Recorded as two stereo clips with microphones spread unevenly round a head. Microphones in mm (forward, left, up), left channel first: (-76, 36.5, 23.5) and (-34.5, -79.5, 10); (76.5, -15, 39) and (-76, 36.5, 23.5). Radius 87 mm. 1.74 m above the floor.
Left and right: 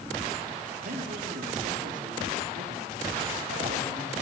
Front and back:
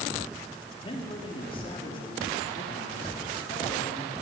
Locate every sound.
0.8 s a man speaking: 80° right, 4 m